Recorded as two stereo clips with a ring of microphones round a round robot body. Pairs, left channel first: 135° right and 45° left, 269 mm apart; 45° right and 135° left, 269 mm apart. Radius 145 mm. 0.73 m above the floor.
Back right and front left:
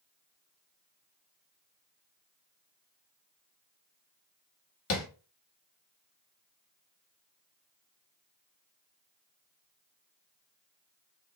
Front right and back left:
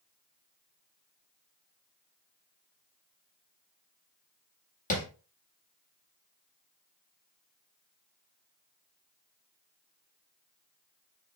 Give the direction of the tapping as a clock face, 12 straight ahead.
3 o'clock.